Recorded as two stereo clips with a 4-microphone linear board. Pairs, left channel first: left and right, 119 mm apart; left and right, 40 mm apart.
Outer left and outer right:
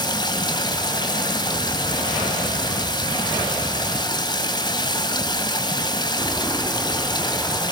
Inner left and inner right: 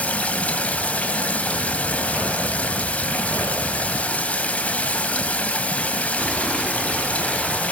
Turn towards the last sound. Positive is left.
turn(degrees=35)  # may be behind; listen again after turning